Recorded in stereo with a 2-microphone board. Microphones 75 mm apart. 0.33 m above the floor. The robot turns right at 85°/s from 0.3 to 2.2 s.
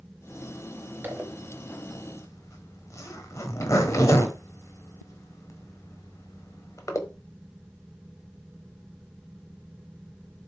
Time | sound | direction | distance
1.0 | a zipper | 30° right (ahead or behind) | 1.3 m